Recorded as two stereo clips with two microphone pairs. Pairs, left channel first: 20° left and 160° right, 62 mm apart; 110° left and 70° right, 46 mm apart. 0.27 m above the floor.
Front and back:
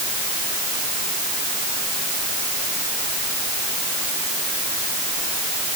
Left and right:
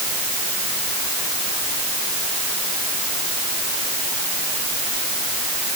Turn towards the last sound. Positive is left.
No sound to turn to.